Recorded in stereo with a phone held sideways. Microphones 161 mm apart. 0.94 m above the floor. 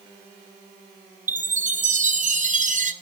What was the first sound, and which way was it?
A chime, 50° right (ahead or behind).